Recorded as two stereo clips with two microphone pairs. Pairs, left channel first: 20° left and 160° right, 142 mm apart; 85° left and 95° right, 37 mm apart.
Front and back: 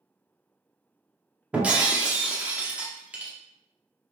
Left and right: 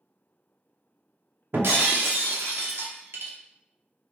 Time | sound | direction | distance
1.5 | breaking glass | 80° right | 0.7 m